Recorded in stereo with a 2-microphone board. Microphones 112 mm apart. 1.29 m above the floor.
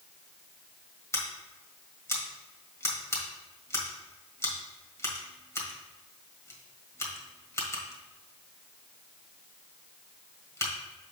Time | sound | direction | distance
1.1 | scissors | 25° left (ahead or behind) | 1.4 m